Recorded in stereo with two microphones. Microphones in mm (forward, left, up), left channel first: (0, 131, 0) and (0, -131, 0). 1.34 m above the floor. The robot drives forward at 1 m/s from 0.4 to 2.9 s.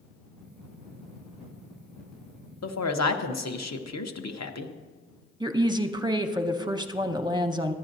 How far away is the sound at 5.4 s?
About 0.6 m.